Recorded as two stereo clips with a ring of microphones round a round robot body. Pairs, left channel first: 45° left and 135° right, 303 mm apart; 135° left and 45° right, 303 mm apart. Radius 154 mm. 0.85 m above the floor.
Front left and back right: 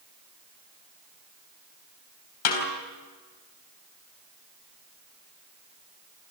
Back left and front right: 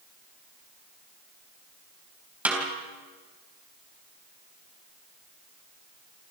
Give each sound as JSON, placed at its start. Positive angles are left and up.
{"t": 2.5, "sound": "a snare drum", "azimuth_deg": 40, "distance_m": 4.0}